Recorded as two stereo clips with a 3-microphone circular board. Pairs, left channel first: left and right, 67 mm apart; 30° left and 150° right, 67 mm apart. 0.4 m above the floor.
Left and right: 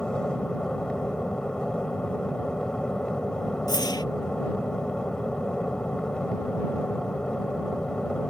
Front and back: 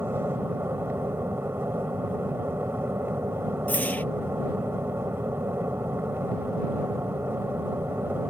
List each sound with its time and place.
0.0 s an aircraft: 165° left
3.7 s a whoosh: 95° left